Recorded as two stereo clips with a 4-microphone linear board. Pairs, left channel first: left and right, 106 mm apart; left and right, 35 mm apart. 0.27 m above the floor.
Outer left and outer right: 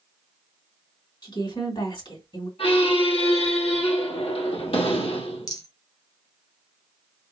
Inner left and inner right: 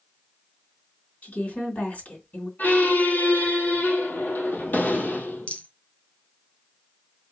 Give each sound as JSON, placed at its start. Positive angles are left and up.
{"t": 1.2, "sound": "a woman speaking", "side_deg": 45, "distance_m": 3.0}
{"t": 2.6, "sound": "a squeak", "side_deg": 65, "distance_m": 2.5}
{"t": 5.5, "sound": "a rattle", "side_deg": 35, "distance_m": 1.7}